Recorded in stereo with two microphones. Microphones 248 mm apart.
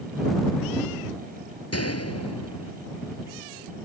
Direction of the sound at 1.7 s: 80° left.